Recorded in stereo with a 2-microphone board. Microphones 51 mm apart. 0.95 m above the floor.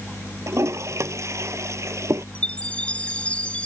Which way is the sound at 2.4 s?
25° left (ahead or behind).